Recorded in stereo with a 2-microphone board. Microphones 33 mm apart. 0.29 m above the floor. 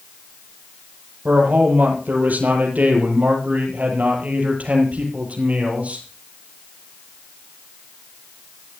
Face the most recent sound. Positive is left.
turn(degrees=-50)  # may be behind; listen again after turning